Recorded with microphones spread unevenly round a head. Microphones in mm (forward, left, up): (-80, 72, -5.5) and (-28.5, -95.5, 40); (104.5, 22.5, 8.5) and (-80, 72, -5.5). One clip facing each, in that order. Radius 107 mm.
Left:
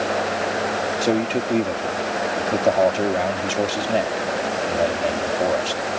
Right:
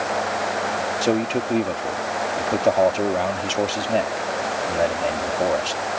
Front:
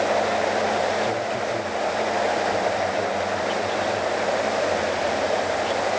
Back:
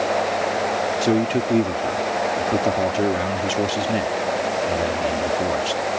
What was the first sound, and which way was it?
A man speaking, 165° right.